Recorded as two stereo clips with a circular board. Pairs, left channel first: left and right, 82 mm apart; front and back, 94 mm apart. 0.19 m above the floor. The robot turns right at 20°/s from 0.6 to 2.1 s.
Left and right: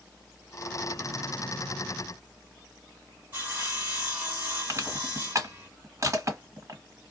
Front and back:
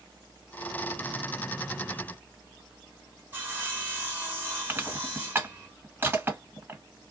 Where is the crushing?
120° right, 2.0 m.